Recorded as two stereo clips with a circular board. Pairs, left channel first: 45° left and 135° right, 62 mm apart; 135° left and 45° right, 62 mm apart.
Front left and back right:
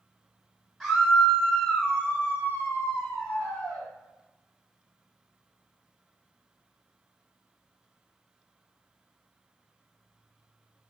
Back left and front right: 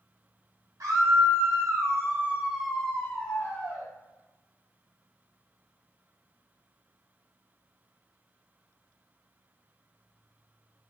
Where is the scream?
45° right, 1.3 m; by 3.9 s 100° left, 1.0 m.